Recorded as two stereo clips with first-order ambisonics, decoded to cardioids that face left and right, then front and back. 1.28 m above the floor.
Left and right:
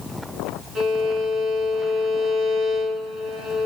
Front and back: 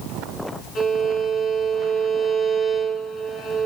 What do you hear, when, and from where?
0.8 s a violin: 45° right, 1.2 m